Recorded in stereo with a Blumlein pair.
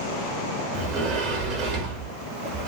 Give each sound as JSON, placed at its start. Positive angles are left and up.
{"t": 0.7, "sound": "a sliding door", "azimuth_deg": -40, "distance_m": 1.2}